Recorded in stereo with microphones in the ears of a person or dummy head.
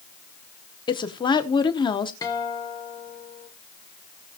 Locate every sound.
0.9 s a woman speaking: 25° left (ahead or behind), 0.9 m
2.2 s a guitar: 20° left (ahead or behind), 1.7 m